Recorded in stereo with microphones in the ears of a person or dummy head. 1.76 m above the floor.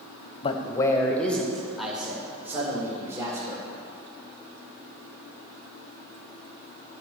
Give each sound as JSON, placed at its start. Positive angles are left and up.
{"t": 0.4, "sound": "a man speaking", "side_deg": 40, "distance_m": 1.2}